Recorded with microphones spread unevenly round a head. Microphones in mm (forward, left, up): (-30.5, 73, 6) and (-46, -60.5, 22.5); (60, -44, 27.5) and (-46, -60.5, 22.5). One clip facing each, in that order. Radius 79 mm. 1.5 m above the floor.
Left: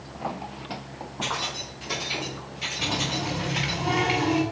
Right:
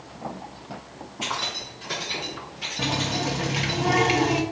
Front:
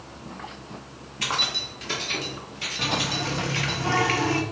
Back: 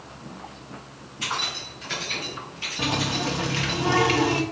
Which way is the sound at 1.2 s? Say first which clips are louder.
Even, front 1 dB; 15° right.